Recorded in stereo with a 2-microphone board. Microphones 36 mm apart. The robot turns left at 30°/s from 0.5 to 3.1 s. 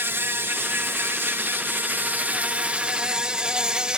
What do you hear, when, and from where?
0.0 s an insect: 75° right; by 4.0 s 155° right